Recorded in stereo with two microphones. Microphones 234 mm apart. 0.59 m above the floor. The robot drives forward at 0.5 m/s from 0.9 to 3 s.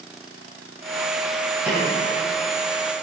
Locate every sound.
1.7 s a snare drum: 5° right (ahead or behind), 4.5 m